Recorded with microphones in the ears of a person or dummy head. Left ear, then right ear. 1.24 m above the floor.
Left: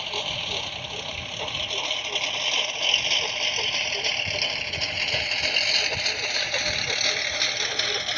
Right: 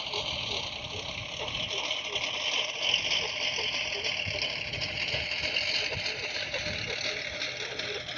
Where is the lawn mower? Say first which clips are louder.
Left 4 dB; 10° left (ahead or behind); by 8.2 s 40° left (ahead or behind).